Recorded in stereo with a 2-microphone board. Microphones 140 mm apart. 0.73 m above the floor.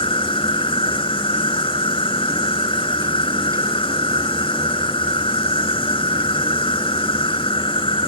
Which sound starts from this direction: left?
An insect, at 0.0 s.